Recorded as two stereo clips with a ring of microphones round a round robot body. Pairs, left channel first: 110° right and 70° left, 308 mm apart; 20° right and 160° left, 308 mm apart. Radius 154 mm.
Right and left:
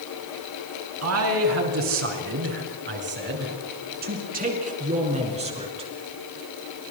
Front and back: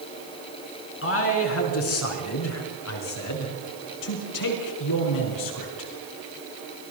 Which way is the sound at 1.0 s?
25° left.